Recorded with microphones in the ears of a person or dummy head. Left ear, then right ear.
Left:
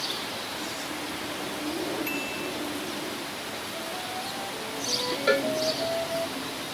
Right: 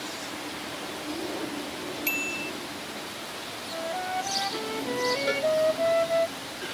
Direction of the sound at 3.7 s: 50° right (ahead or behind).